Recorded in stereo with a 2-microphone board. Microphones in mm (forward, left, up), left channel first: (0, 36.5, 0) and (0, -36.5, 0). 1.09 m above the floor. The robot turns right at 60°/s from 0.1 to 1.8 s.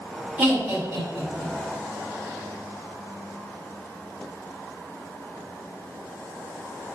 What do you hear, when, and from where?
0.4 s laughter: 20° right (ahead or behind), 2.0 m; by 1.5 s 80° right, 2.0 m